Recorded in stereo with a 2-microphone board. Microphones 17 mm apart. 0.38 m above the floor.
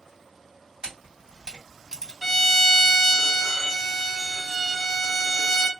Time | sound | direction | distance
0.8 | a camera shutter | 55° right (ahead or behind) | 2 m
2.2 | a violin | 25° left (ahead or behind) | 1.0 m